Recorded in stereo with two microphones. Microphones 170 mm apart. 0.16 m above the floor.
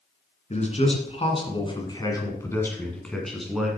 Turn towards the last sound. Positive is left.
turn(degrees=-5)  # may be behind; listen again after turning